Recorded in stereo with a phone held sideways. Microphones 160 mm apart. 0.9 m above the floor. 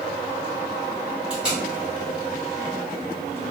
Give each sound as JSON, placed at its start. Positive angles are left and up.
{"t": 1.3, "sound": "tape being pulled", "side_deg": -5, "distance_m": 1.5}